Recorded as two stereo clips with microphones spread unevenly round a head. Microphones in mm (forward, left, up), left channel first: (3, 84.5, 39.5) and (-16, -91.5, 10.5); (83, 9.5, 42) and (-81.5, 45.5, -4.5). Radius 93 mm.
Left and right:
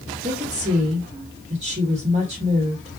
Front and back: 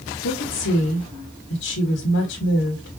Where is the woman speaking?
40° right, 1.1 m.